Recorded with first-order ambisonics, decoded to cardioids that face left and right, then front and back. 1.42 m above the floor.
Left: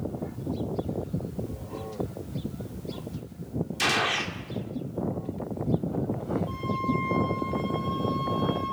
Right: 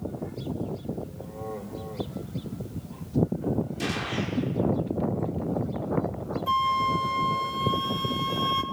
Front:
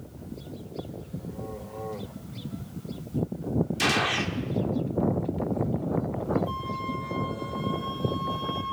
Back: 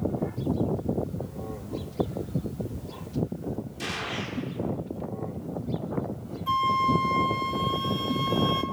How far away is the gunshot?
About 1.7 m.